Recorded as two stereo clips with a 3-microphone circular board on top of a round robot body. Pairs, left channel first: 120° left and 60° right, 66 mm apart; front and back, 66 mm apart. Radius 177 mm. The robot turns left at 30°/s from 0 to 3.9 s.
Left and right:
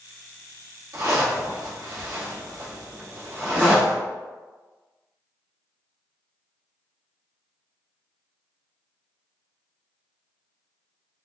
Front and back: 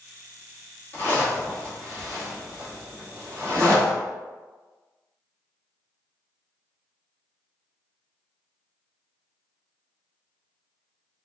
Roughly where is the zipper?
Ahead right.